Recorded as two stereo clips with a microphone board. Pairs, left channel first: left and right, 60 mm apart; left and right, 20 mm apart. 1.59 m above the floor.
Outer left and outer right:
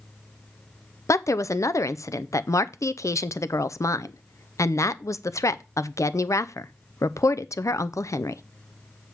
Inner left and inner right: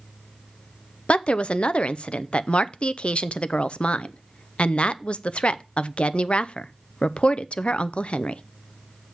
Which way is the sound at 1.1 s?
65° left (ahead or behind).